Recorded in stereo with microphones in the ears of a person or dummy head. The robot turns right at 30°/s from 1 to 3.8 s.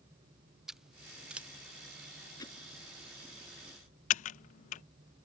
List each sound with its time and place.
0.7 s scissors: 5° right (ahead or behind); by 1.5 s 10° right (ahead or behind)
2.4 s hammering: 25° left (ahead or behind); by 2.6 s 20° left (ahead or behind)
4.1 s typing on a keyboard: 45° left (ahead or behind)